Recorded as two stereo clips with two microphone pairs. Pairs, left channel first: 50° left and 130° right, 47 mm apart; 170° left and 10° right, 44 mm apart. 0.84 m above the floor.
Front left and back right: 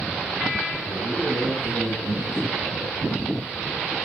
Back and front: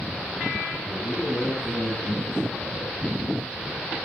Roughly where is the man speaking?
Behind right.